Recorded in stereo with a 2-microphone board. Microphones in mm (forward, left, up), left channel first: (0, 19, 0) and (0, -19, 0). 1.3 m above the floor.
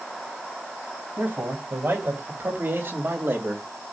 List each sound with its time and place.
1.2 s a man speaking: 80° right, 2.5 m; by 3.7 s 70° right (ahead or behind), 1.9 m